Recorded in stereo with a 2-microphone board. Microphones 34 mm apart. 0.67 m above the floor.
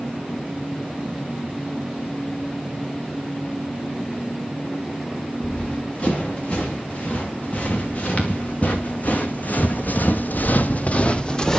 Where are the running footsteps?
35° left (ahead or behind), 5.5 m; by 11.6 s 15° left (ahead or behind), 1.3 m.